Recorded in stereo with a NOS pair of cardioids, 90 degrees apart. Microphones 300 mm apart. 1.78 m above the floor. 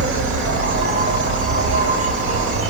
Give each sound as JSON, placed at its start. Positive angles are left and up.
{"t": 0.0, "sound": "an insect", "azimuth_deg": -45, "distance_m": 1.1}